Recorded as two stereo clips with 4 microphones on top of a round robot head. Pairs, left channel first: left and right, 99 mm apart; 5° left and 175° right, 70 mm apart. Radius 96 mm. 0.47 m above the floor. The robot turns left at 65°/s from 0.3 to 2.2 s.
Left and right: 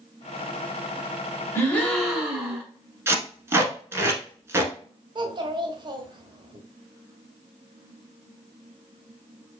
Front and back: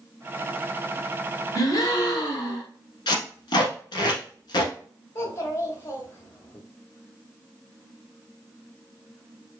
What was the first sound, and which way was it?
A gasp, 30° left.